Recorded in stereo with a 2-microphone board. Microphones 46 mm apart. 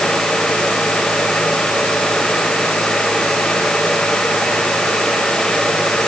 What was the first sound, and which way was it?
Only background noise.